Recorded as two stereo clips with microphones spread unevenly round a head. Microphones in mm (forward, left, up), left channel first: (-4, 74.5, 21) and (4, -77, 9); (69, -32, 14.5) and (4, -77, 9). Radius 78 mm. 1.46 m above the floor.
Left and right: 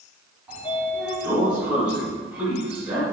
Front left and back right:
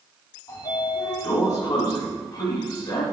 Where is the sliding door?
5° right, 2 m.